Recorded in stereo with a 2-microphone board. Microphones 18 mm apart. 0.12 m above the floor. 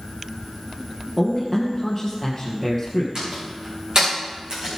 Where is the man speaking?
5° right (ahead or behind), 2.5 m.